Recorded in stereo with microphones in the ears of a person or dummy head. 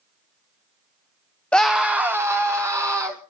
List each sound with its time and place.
1.5 s a scream: 5° left (ahead or behind), 0.7 m; by 3.2 s 15° right (ahead or behind), 2.5 m